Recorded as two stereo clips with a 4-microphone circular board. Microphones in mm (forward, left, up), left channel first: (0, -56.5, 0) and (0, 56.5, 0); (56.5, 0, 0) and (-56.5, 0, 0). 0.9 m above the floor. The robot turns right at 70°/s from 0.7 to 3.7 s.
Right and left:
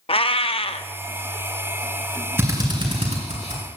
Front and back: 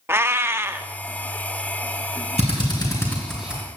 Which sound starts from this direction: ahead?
A drill, at 2.4 s.